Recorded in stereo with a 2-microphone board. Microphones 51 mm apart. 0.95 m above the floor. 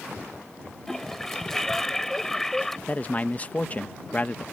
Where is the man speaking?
35° left (ahead or behind).